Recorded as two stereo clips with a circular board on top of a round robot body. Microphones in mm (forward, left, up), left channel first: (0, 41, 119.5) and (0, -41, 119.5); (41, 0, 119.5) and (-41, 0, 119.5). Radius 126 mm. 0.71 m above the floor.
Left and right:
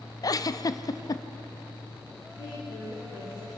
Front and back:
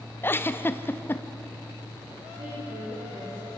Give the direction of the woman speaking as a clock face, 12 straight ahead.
7 o'clock.